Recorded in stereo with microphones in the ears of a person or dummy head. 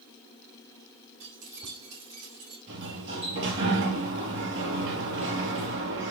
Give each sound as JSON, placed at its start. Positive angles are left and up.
{"t": 1.2, "sound": "keys jangling", "side_deg": -85, "distance_m": 5.5}
{"t": 2.7, "sound": "a sliding door", "side_deg": -60, "distance_m": 3.5}